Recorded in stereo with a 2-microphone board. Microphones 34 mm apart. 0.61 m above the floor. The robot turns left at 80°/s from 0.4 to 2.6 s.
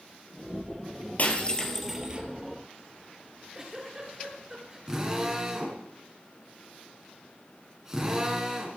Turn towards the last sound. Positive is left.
turn(degrees=-20)  # may be behind; listen again after turning